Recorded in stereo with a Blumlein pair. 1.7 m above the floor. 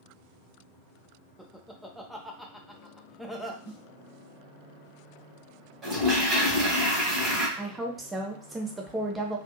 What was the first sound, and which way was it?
Laughter, straight ahead.